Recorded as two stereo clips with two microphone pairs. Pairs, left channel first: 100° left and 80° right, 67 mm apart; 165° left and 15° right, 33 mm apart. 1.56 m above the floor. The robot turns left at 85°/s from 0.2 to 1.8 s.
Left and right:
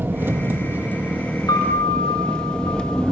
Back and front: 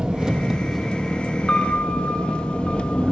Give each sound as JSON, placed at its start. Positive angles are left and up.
{"t": 0.0, "sound": "an engine running", "azimuth_deg": -60, "distance_m": 1.0}
{"t": 1.5, "sound": "a piano", "azimuth_deg": 105, "distance_m": 1.9}